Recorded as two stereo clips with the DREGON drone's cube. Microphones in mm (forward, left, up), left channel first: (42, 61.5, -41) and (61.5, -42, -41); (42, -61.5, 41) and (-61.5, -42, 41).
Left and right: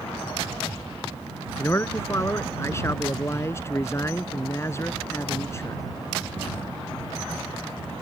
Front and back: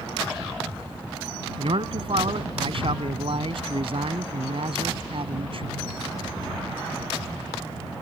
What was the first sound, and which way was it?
A man speaking, 160° left.